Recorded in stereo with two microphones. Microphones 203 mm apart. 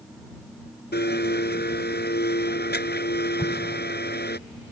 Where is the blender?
55° left (ahead or behind).